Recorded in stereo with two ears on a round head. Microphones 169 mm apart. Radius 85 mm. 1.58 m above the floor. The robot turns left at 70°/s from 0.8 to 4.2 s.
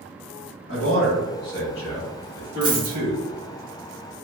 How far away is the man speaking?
About 1.2 m.